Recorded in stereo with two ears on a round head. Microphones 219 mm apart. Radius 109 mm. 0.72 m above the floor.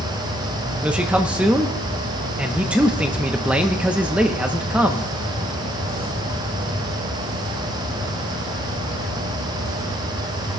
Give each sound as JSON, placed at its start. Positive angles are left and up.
{"t": 0.8, "sound": "a man speaking", "side_deg": -5, "distance_m": 0.7}